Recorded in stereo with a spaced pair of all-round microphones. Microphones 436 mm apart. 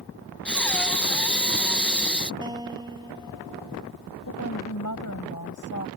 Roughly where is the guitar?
Centre.